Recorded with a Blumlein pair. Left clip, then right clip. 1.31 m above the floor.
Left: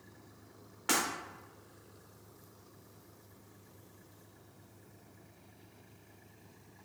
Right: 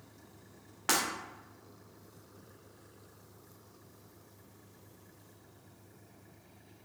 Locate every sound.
0.9 s breaking glass: 15° right, 1.9 m